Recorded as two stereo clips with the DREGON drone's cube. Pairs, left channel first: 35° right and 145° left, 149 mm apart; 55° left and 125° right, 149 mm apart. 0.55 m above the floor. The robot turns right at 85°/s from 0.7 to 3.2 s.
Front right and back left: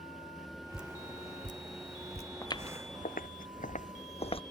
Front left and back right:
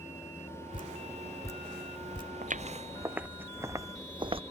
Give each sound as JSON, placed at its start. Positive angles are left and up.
{"t": 0.7, "sound": "dripping", "azimuth_deg": 60}
{"t": 2.4, "sound": "footsteps", "azimuth_deg": -105}